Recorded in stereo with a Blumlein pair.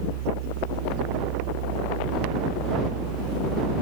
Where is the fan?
55° right.